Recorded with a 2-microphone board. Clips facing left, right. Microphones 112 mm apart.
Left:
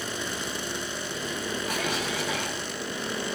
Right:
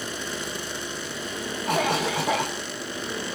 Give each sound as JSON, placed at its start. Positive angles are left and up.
{"t": 1.7, "sound": "a cough", "side_deg": -60, "distance_m": 2.0}